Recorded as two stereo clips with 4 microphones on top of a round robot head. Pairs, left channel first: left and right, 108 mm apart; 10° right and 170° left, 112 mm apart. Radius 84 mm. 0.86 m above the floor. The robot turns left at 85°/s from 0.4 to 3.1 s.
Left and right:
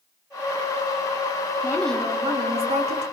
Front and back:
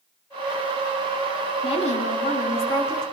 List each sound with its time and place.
1.6 s a woman speaking: 30° left, 2 m; by 3.0 s 90° right, 2 m